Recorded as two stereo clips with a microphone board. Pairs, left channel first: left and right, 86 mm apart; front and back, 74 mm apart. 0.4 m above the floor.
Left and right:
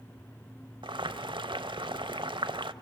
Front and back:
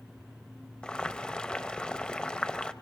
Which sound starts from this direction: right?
Boiling, at 0.8 s.